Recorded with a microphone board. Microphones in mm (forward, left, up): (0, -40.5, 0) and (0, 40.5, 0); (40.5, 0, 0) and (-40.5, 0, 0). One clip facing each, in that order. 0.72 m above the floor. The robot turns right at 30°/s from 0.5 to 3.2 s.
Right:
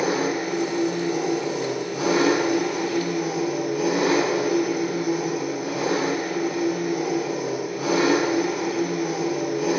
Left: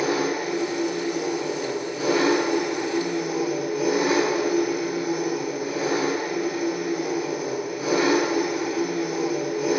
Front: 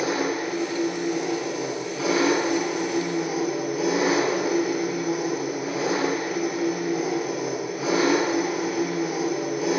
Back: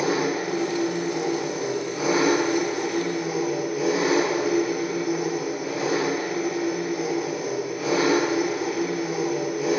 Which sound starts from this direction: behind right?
An engine running, at 0.0 s.